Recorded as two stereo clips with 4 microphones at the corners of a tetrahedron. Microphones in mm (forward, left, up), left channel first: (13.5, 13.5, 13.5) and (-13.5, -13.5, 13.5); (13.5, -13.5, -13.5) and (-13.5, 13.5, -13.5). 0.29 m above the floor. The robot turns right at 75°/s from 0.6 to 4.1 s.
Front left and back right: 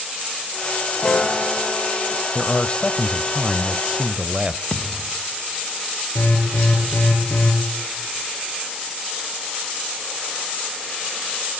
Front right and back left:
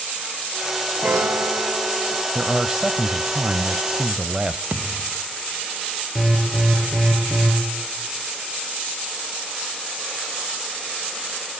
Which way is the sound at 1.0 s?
100° left.